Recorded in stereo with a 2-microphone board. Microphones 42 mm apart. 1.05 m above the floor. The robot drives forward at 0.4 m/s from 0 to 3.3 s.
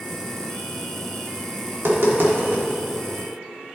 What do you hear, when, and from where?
1.7 s tapping: 70° right (ahead or behind), 1.7 m; by 2.6 s 60° right (ahead or behind), 1.9 m